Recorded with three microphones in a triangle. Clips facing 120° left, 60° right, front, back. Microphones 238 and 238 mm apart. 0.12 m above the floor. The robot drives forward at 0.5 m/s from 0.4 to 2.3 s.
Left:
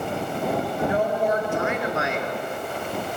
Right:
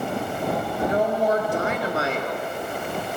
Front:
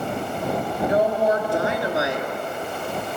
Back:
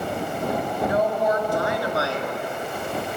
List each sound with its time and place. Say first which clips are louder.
0.8 s a woman speaking: right 2 dB, front 3 dB; 35° right, 2 m; by 2.3 s 60° right, 1.9 m